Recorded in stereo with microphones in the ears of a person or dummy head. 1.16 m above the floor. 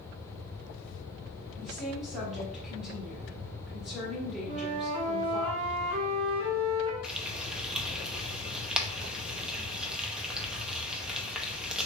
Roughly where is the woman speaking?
Centre.